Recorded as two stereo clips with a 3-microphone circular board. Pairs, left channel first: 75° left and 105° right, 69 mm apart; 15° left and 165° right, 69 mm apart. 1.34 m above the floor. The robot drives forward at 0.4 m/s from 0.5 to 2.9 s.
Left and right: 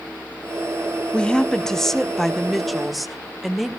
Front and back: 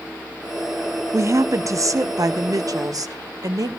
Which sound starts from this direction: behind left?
A woman speaking, at 1.1 s.